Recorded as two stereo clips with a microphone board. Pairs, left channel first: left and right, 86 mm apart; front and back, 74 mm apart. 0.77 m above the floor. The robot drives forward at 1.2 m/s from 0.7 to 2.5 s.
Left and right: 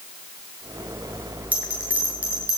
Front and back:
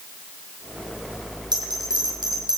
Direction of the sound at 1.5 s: 160° right.